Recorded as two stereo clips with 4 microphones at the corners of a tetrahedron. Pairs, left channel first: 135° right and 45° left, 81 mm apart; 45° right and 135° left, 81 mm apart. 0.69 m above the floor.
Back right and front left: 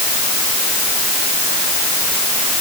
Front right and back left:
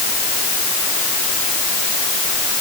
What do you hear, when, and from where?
Only background noise.